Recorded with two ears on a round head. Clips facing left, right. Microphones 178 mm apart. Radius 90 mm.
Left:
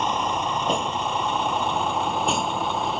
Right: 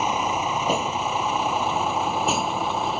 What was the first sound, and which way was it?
A vehicle, 5° right (ahead or behind).